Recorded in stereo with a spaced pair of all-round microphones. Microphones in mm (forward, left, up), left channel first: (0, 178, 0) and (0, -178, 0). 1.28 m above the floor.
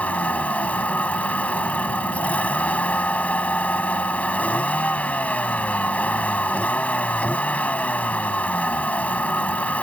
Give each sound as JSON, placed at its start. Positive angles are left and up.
{"t": 0.0, "sound": "a vehicle", "side_deg": 5}